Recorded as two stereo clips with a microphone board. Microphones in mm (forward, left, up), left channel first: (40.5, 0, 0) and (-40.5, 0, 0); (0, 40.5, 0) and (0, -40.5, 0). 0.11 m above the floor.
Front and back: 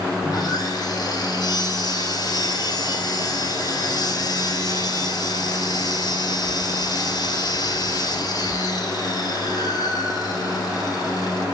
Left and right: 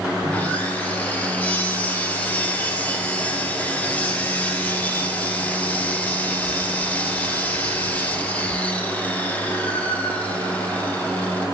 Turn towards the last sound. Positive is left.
turn(degrees=25)